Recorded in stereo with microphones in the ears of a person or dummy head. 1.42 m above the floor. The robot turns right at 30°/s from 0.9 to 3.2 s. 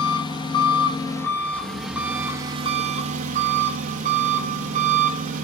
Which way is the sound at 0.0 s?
155° left.